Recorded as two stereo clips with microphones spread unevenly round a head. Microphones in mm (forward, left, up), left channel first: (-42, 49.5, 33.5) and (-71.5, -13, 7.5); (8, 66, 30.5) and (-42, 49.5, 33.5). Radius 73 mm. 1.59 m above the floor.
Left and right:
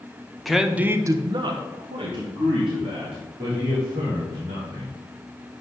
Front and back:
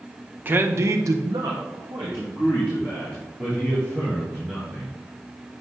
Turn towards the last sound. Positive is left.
turn(degrees=-85)